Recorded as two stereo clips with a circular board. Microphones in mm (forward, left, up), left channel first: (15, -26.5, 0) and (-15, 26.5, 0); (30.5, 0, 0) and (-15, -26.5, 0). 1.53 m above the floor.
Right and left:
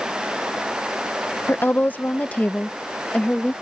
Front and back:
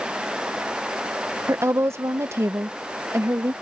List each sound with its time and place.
1.5 s a woman speaking: 115° right; by 3.5 s 130° right